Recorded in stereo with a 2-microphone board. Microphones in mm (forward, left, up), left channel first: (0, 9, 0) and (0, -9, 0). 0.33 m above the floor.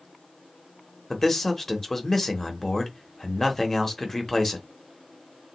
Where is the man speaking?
20° left (ahead or behind), 0.9 m.